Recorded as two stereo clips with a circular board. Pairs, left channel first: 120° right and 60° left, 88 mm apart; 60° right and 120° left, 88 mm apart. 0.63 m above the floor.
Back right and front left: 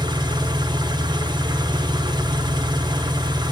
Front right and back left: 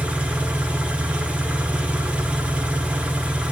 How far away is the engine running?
About 0.7 m.